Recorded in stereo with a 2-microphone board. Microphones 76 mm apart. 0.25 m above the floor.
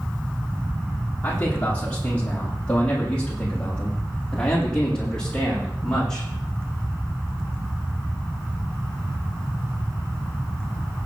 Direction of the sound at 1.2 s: 20° left (ahead or behind).